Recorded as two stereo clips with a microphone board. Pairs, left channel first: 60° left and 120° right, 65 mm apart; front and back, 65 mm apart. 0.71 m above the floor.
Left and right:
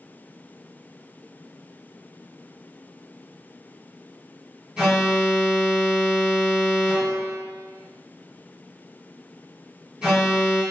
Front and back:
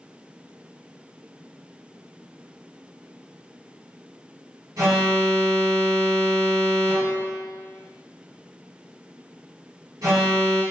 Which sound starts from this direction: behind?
An alarm, at 4.8 s.